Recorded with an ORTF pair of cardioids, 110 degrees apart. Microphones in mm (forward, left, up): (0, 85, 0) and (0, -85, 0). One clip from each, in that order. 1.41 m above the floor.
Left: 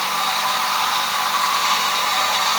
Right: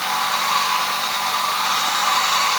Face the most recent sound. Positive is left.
No sound to turn to.